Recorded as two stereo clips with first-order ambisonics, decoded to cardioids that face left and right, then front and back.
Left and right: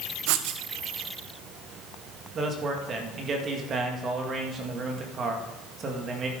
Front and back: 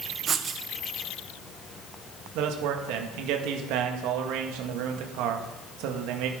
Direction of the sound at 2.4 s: 150° right.